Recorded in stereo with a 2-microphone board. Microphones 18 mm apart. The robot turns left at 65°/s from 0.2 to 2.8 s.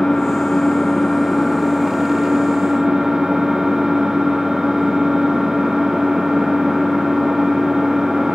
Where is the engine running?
110° left, 3.5 m; by 8.3 s 60° right, 3.5 m.